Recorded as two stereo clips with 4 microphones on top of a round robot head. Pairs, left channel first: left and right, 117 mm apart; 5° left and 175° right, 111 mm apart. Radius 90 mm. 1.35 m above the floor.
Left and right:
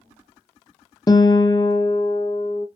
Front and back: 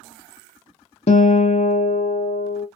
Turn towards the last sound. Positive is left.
turn(degrees=30)